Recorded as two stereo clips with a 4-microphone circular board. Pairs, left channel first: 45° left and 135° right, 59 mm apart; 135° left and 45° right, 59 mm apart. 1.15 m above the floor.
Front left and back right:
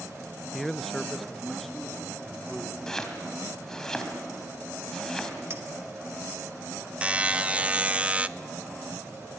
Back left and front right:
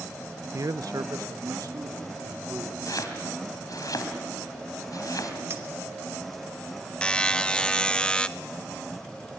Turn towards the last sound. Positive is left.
turn(degrees=-175)